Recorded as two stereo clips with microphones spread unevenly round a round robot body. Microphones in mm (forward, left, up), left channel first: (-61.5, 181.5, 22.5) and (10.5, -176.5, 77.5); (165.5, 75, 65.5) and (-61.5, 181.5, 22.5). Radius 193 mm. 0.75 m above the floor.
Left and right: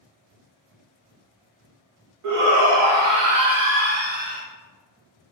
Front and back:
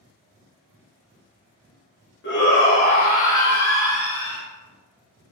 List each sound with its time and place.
2.2 s a shout: 60° right, 1.3 m; by 4.4 s 150° right, 1.3 m